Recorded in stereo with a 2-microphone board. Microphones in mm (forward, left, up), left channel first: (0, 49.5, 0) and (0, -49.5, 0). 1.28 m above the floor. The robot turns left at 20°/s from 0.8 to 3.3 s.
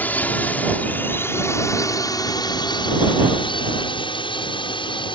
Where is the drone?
15° left (ahead or behind); by 5.2 s 60° left (ahead or behind).